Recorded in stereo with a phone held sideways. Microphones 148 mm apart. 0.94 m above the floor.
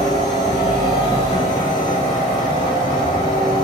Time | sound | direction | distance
0.0 | a machine running | 65° right (ahead or behind) | 3 m